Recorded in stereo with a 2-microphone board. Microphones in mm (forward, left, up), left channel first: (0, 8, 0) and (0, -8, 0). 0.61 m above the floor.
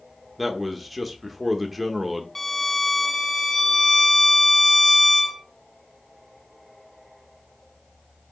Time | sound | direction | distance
0.4 | a man speaking | 5° right (ahead or behind) | 1.3 m
2.4 | a violin | 15° left (ahead or behind) | 0.9 m